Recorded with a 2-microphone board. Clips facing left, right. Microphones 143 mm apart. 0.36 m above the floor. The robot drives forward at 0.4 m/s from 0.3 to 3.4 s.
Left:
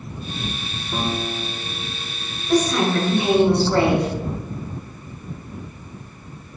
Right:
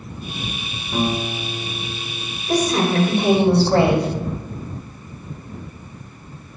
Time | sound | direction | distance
0.9 | a guitar | 10° left (ahead or behind) | 2.0 m
2.5 | a woman speaking | 35° right (ahead or behind) | 1.6 m